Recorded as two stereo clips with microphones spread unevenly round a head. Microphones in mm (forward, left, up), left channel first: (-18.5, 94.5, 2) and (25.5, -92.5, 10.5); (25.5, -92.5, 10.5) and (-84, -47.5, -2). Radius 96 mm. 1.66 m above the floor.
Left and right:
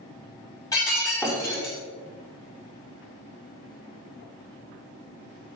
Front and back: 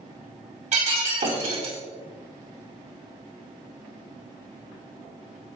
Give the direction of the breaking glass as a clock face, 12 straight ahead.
6 o'clock.